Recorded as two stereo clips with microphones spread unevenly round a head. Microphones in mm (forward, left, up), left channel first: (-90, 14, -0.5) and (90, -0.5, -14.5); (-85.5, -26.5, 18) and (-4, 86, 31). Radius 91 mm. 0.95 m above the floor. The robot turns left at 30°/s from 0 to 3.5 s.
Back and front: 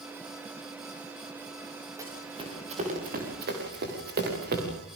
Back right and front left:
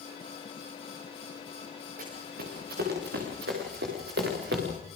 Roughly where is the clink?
I don't hear a clink.